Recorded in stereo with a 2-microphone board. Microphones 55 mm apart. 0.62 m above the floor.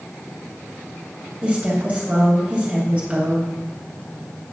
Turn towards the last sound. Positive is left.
turn(degrees=-25)  # may be behind; listen again after turning